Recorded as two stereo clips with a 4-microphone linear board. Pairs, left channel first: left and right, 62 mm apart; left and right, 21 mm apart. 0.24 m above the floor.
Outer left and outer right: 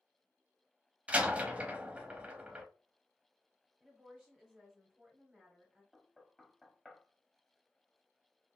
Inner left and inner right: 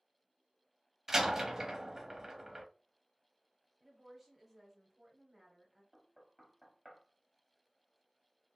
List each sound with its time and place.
1.1 s a door slam: 20° right (ahead or behind), 0.7 m
3.8 s a woman speaking: 10° right (ahead or behind), 1.0 m
5.9 s knocking: centre (ahead or behind), 0.8 m